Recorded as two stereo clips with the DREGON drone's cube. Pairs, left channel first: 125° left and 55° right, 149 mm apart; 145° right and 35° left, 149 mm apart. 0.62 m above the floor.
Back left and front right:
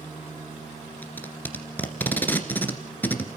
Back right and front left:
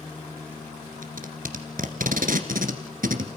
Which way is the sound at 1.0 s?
45° left.